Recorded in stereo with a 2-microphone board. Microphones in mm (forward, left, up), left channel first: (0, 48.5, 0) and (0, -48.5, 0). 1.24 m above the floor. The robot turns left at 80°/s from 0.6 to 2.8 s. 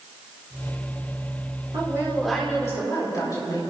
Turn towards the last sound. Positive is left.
turn(degrees=145)